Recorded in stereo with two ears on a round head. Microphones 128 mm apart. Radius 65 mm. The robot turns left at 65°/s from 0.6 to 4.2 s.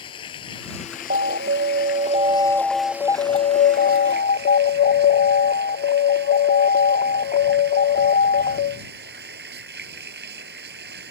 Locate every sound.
0.0 s running water: 145° left; by 11.1 s 90° right
1.1 s an alarm: 70° right; by 8.8 s 85° left